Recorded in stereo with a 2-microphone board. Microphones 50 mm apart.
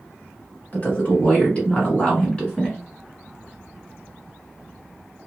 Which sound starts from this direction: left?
A woman speaking, at 0.7 s.